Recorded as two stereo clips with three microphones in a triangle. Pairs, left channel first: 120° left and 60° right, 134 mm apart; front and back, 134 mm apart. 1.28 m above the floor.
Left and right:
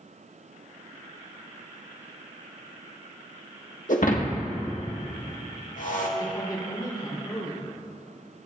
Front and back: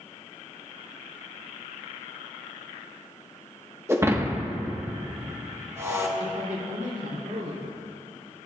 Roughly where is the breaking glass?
Left.